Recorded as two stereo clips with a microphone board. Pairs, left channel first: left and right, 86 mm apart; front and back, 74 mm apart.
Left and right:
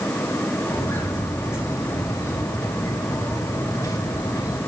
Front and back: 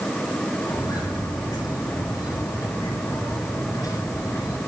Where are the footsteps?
30° left, 8.5 m; by 4.6 s 40° left, 7.5 m.